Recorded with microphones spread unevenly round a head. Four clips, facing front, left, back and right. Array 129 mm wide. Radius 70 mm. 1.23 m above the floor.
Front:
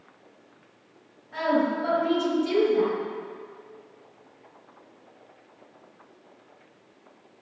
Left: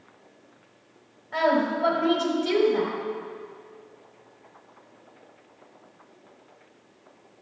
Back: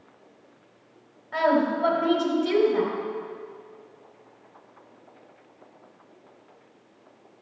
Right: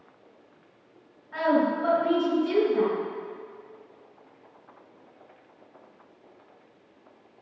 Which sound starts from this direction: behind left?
A woman speaking, at 1.3 s.